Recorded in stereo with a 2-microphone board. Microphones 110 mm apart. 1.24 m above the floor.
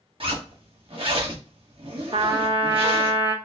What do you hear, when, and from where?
0.2 s a zipper: 55° right (ahead or behind), 1.2 m
2.1 s a trumpet: 55° right (ahead or behind), 0.8 m